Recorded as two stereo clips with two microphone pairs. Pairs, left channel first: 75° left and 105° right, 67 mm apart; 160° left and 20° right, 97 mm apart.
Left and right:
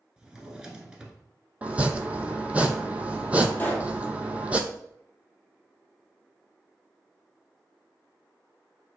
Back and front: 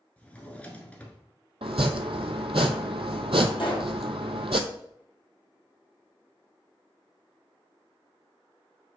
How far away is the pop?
About 1.4 m.